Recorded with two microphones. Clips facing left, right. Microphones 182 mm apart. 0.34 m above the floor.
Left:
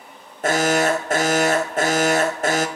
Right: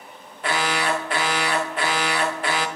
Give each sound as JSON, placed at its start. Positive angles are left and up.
{"t": 0.4, "sound": "an alarm", "side_deg": 45, "distance_m": 0.8}